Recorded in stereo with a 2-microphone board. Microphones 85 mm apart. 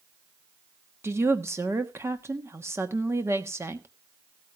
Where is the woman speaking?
30° right (ahead or behind), 1.1 m.